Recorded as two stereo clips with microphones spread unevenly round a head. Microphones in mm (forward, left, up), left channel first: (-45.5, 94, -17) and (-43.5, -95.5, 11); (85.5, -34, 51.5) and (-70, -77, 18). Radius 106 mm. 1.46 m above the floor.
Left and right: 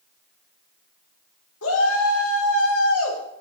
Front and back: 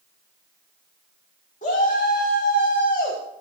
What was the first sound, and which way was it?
A shout, 70° left.